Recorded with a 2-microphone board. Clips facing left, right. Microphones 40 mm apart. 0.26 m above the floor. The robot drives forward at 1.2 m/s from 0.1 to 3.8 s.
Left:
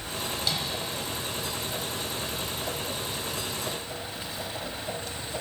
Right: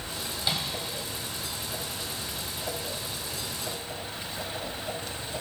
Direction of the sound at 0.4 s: 20° right (ahead or behind).